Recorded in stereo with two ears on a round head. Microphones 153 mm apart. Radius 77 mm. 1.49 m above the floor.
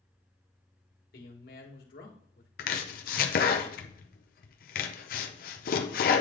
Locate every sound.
1.1 s a man speaking: 60° left (ahead or behind), 1.8 m
2.6 s chopping: 55° left (ahead or behind), 0.7 m